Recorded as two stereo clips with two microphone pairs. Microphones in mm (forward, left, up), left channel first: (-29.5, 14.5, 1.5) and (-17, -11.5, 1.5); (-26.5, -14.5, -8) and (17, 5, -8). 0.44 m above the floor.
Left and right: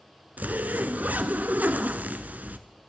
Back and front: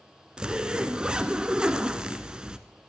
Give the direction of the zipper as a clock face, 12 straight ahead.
2 o'clock.